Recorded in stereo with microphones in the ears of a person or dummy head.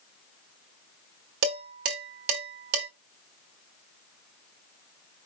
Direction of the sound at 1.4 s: 55° right (ahead or behind).